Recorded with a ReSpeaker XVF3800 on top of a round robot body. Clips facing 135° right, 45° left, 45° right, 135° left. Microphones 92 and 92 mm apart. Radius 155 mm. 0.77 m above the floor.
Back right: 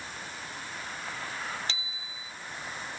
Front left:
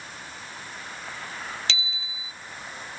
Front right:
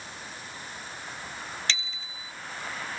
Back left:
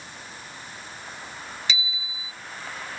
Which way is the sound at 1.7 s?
55° left.